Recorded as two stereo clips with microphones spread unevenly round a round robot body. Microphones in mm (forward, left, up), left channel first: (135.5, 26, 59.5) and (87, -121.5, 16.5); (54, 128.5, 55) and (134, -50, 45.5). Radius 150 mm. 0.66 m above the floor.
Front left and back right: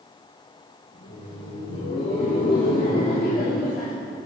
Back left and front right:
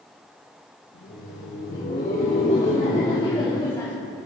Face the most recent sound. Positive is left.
turn(degrees=35)